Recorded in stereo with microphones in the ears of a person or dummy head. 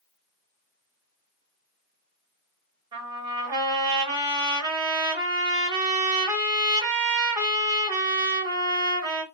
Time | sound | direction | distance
2.9 | a trumpet | 20° right (ahead or behind) | 1.4 m